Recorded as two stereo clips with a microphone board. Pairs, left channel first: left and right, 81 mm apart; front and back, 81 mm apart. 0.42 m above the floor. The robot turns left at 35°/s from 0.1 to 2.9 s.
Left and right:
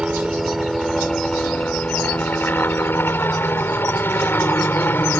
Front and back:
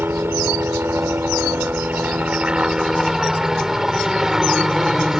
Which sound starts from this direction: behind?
A helicopter, at 0.0 s.